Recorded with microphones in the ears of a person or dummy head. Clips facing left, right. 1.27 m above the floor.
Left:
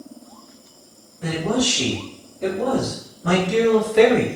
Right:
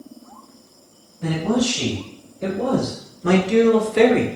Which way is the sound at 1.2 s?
25° right (ahead or behind).